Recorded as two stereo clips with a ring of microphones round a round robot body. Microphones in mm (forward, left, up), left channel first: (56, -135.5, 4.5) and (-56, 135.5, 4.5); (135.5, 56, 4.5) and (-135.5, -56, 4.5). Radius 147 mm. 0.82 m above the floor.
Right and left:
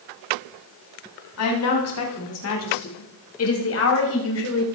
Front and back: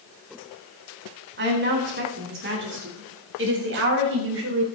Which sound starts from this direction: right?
A woman speaking, at 1.4 s.